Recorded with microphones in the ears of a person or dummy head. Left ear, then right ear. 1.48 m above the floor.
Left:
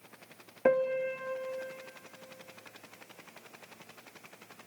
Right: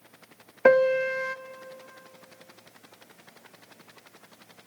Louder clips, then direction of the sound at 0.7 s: Right 8 dB; 50° right (ahead or behind).